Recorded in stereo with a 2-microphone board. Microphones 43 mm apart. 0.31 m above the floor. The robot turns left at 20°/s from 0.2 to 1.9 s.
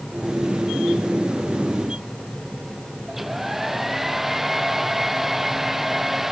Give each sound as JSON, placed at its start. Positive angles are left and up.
{"t": 3.1, "sound": "a hair dryer", "side_deg": -5}